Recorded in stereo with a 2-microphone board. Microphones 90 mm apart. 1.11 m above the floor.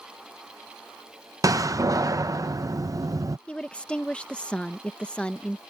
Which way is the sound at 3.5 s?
10° left (ahead or behind).